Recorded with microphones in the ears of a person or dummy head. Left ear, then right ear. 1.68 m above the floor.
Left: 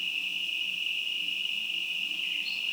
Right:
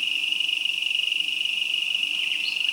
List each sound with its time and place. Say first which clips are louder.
0.0 s an insect: right 7 dB; 60° right (ahead or behind), 1.1 m